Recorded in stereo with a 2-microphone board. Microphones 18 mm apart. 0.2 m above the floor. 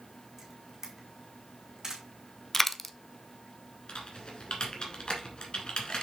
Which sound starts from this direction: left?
Typing on a keyboard, at 3.9 s.